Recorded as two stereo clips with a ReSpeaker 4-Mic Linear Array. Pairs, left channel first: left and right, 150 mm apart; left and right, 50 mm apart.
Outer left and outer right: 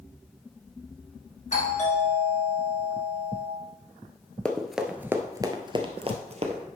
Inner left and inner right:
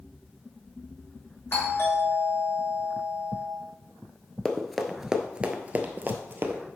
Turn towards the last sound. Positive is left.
turn(degrees=-50)  # may be behind; listen again after turning